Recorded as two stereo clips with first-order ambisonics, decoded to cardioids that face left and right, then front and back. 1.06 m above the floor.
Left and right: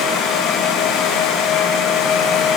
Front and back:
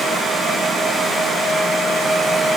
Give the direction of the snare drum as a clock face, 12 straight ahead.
I don't hear a snare drum.